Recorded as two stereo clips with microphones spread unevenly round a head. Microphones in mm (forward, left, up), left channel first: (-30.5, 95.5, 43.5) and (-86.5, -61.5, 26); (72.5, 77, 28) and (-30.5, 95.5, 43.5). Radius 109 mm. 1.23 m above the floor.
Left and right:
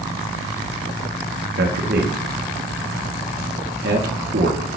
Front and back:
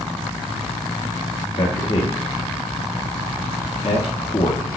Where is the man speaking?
70° right, 2 m.